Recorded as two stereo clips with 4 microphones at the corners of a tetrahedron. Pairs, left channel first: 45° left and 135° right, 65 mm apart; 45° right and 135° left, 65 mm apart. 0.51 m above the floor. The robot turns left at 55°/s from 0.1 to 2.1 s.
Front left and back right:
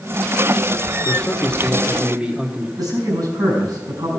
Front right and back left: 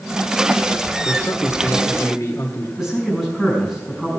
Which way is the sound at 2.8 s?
145° right.